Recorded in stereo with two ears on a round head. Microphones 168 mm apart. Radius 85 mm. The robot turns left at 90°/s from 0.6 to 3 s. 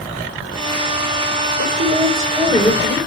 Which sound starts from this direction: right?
A woman speaking, at 1.6 s.